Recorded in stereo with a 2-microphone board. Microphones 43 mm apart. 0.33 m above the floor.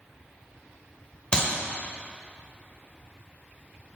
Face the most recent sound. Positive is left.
turn(degrees=20)  # may be behind; listen again after turning